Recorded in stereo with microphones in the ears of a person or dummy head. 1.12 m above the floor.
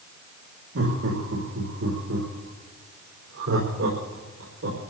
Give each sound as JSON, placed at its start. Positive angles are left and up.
{"t": 0.8, "sound": "laughter", "side_deg": -80, "distance_m": 2.5}